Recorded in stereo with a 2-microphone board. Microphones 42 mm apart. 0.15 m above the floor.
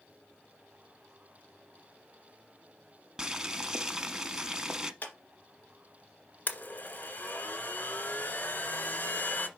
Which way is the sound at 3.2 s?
15° right (ahead or behind).